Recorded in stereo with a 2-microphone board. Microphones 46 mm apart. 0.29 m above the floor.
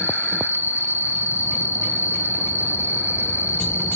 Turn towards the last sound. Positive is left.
turn(degrees=-40)  # may be behind; listen again after turning